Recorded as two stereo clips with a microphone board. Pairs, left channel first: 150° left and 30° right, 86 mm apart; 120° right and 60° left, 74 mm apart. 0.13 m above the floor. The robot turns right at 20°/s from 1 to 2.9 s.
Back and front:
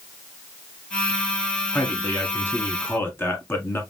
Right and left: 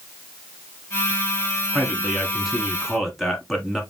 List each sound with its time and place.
1.7 s a man speaking: 125° left, 1.4 m; by 3.8 s 150° left, 1.4 m